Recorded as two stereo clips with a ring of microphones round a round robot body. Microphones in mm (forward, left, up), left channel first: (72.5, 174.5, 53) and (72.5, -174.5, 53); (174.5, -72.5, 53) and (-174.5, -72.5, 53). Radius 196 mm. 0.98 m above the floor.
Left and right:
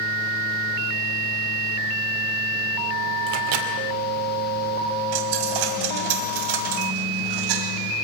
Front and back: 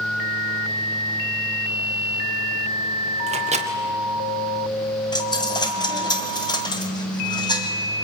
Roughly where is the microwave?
Right.